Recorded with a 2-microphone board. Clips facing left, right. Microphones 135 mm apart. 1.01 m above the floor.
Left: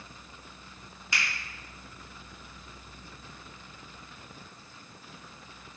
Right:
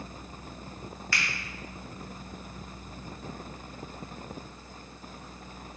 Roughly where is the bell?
No bell in this recording.